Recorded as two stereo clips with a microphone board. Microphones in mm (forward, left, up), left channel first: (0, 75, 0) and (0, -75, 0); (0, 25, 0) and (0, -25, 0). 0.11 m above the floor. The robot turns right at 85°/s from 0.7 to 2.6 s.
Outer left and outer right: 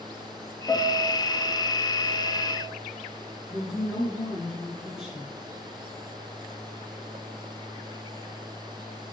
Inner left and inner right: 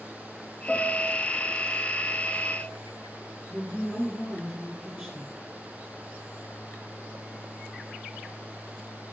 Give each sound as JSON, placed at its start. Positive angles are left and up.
{"t": 0.7, "sound": "a piano", "azimuth_deg": 25, "distance_m": 1.6}
{"t": 3.5, "sound": "a woman speaking", "side_deg": -5, "distance_m": 1.5}